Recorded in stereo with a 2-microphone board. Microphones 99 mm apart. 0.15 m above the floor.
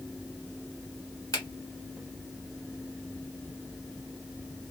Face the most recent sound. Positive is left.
turn(degrees=35)  # may be behind; listen again after turning